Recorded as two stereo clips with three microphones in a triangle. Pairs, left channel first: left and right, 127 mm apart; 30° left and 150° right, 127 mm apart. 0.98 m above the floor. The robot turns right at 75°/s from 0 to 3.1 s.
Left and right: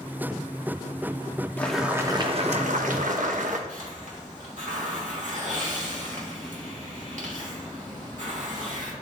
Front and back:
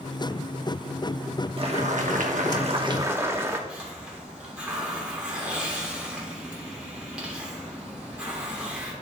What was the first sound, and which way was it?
Boiling, 165° left.